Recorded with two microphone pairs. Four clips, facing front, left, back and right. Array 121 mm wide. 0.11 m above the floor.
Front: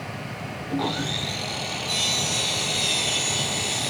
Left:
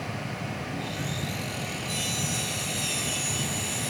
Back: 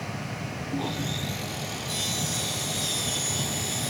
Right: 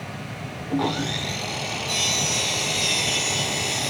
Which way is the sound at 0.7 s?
60° right.